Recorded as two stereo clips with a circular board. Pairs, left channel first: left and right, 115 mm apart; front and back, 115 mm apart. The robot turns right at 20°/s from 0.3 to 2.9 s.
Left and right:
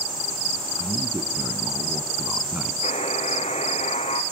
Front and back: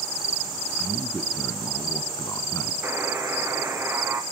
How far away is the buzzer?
About 2.5 m.